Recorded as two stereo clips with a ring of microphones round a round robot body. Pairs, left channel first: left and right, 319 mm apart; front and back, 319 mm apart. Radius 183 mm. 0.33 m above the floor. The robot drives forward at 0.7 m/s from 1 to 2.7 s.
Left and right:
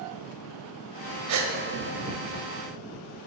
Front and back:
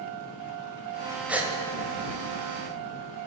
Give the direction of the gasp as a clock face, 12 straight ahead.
3 o'clock.